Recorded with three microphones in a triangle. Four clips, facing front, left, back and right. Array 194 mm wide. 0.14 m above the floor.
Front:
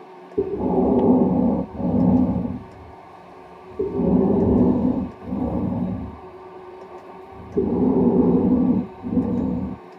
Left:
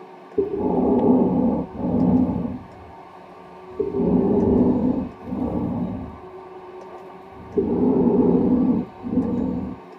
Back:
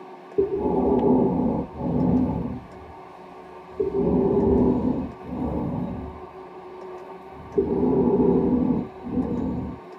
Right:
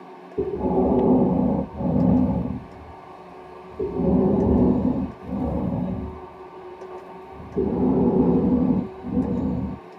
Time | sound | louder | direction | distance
0.4 | breathing | left 1 dB, front 1 dB | 20° left | 1.0 m